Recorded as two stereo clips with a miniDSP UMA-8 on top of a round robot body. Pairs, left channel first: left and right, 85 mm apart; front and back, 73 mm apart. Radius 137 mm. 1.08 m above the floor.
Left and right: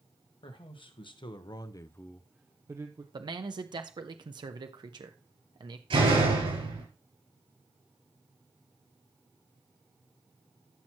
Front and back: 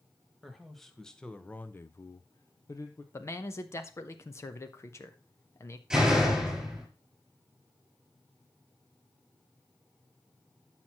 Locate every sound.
0.4 s a man speaking: 90° left, 1.8 m; by 3.0 s 50° right, 1.1 m
3.1 s a man speaking: 55° right, 0.9 m
5.9 s a door slam: 95° right, 6 m